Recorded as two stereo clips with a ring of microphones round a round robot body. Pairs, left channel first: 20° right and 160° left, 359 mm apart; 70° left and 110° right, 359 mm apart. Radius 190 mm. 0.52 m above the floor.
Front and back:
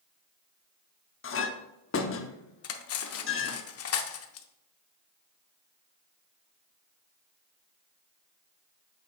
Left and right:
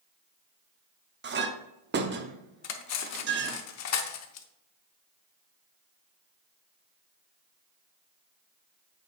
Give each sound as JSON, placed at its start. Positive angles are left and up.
{"t": 1.2, "sound": "a clink", "azimuth_deg": -65, "distance_m": 0.8}
{"t": 2.6, "sound": "cutlery clinking", "azimuth_deg": 25, "distance_m": 0.7}